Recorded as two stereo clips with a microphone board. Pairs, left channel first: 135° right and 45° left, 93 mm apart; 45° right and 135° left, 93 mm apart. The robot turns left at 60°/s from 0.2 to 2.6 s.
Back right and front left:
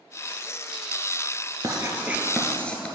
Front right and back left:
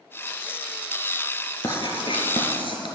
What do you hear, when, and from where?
1.6 s writing: straight ahead, 1.4 m; by 2.9 s 60° right, 1.4 m